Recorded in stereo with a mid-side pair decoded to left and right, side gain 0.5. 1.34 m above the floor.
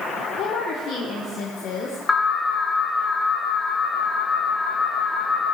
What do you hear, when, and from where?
0.4 s a woman speaking: 65° left, 1.4 m
2.1 s an alarm: 20° left, 1.6 m